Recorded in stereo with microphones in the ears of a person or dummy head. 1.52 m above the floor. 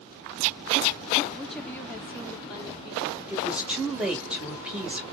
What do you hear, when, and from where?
1.4 s a woman speaking: centre (ahead or behind), 1.1 m; by 3.2 s 35° left (ahead or behind), 1.7 m
3.3 s a woman speaking: 5° right (ahead or behind), 1.5 m